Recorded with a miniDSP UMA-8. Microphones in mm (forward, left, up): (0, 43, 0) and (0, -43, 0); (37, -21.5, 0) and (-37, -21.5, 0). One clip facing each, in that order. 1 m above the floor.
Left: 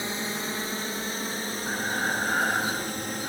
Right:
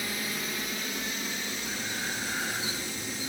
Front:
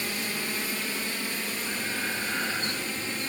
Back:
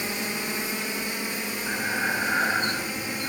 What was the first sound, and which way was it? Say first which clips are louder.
A drone: left 3 dB, back 2 dB; 125° left.